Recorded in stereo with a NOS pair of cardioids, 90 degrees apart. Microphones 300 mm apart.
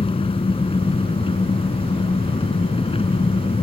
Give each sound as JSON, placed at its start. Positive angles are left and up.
{"t": 0.0, "sound": "an engine running", "azimuth_deg": 20}